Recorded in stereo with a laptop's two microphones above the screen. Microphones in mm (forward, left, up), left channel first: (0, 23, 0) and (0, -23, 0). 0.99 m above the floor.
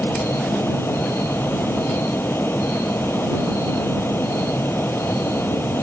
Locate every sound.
0.0 s a fan: 65° left (ahead or behind)